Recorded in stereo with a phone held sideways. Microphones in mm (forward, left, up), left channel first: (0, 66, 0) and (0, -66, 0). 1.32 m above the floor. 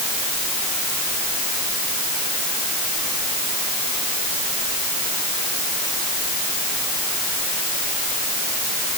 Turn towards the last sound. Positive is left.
No sound to turn to.